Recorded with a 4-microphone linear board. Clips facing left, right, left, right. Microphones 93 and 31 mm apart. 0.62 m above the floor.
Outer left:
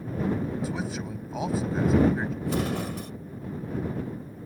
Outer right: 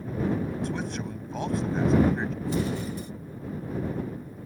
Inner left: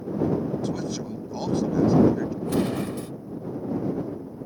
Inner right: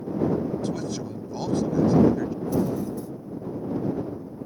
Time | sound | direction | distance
0.6 | a man speaking | 5° left (ahead or behind) | ?
2.4 | an explosion | 75° left (ahead or behind) | ?